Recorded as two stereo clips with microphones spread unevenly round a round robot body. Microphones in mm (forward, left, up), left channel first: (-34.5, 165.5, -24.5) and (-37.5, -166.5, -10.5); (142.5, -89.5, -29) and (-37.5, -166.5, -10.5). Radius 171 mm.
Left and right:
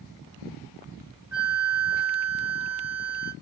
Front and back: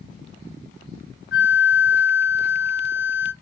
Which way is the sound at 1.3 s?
5° right.